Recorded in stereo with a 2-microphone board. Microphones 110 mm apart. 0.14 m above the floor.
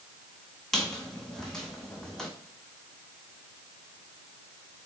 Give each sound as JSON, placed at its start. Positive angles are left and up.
{"t": 0.7, "sound": "a squeak", "side_deg": 5, "distance_m": 0.7}